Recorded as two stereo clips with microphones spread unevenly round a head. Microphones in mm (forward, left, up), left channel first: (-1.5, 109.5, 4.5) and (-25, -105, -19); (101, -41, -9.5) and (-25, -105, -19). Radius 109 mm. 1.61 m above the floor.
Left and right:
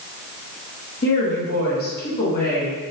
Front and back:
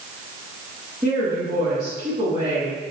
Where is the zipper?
No zipper in this recording.